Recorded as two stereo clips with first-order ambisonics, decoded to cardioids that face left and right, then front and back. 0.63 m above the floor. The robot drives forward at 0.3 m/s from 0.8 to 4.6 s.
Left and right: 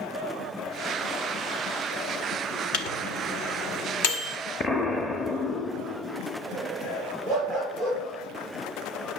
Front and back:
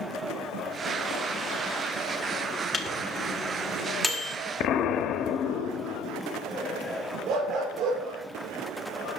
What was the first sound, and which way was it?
A microwave, 75° left.